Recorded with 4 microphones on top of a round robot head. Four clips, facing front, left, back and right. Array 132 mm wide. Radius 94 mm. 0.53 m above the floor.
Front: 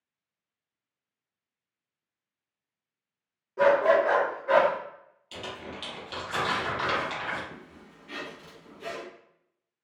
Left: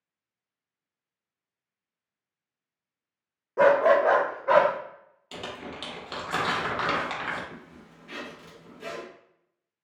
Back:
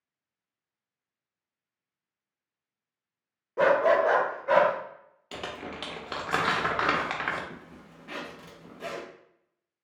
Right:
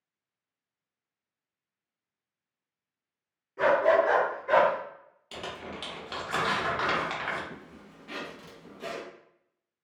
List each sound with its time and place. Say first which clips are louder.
3.6 s a dog barking: left 3 dB, front 1 dB; 115° left, 0.5 m; by 4.7 s 95° left, 1.1 m
5.3 s crumpling: left 1 dB, back 2 dB; 170° left, 0.8 m
7.5 s a zipper: even, back 1 dB; 165° right, 0.8 m